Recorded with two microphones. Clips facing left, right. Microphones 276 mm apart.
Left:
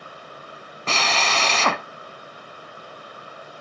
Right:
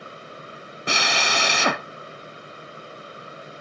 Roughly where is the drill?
Centre.